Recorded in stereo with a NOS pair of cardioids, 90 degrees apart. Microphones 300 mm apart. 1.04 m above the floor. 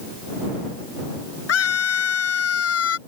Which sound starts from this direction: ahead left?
A scream, at 1.5 s.